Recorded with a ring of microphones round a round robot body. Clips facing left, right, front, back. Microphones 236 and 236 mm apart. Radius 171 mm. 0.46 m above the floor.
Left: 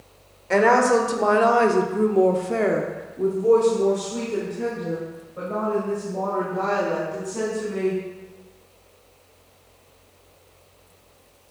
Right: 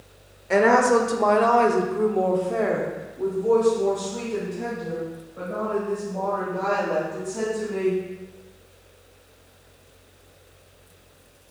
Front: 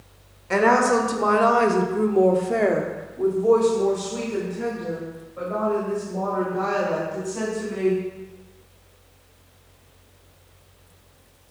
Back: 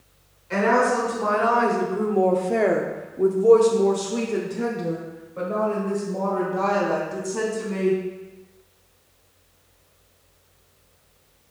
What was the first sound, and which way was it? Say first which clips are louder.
A woman speaking: even, front 2 dB; 5° right.